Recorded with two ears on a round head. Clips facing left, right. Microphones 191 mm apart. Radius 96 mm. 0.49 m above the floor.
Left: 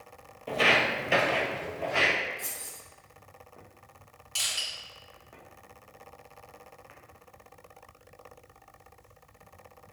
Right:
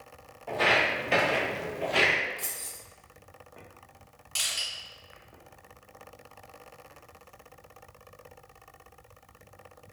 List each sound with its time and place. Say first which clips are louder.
0.5 s footsteps: even; 45° left (ahead or behind), 0.6 m; by 2.1 s 55° right (ahead or behind), 0.8 m
2.4 s keys jangling: even; 35° right (ahead or behind), 0.9 m
4.3 s crushing: even; 5° right (ahead or behind), 1.9 m